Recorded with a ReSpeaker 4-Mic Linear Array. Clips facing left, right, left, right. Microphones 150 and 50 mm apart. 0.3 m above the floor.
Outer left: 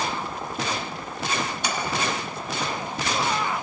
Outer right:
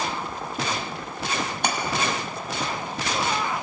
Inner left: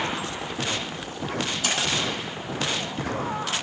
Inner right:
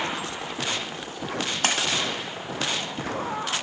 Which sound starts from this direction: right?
A splash, at 1.6 s.